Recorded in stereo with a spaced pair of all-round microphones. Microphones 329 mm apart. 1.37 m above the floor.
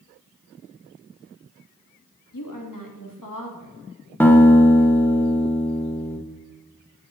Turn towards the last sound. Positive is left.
turn(degrees=5)  # may be behind; listen again after turning